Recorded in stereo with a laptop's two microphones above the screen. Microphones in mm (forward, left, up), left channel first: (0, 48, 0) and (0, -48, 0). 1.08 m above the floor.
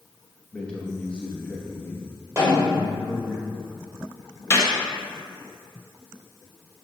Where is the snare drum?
30° right (ahead or behind), 1.7 m.